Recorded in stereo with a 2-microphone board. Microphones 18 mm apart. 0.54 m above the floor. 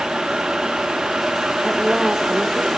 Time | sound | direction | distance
1.6 | a woman speaking | 10° right (ahead or behind) | 0.7 m